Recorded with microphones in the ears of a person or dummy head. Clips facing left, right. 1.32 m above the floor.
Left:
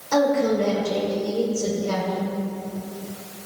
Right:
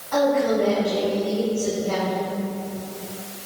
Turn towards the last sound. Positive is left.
turn(degrees=70)  # may be behind; listen again after turning